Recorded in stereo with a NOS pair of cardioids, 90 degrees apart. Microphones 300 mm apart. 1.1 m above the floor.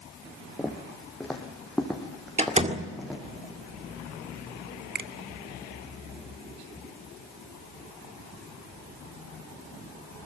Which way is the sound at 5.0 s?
35° right.